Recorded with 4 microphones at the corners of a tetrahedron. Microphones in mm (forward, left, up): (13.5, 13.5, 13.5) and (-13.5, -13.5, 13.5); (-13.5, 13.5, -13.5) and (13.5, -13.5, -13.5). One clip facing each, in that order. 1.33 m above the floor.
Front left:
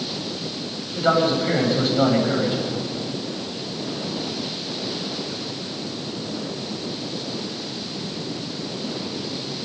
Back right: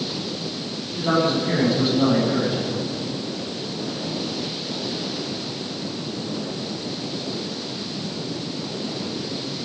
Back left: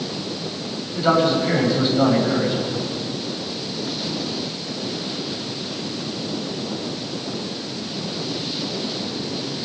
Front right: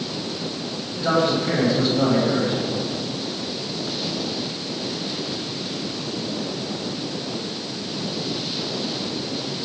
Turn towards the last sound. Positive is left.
turn(degrees=60)